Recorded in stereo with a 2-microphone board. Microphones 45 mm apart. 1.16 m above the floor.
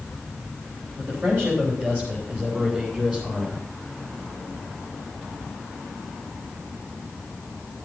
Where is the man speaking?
50° right (ahead or behind), 4.5 m; by 3.6 s 20° right (ahead or behind), 3.5 m.